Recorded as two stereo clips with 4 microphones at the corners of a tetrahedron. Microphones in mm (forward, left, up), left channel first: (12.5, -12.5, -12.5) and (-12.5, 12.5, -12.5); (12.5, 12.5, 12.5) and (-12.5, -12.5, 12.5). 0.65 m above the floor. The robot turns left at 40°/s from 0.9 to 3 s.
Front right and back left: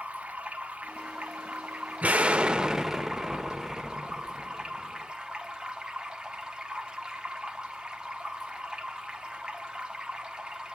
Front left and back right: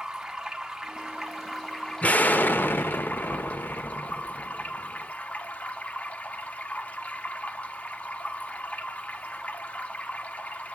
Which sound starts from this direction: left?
An explosion, at 2.0 s.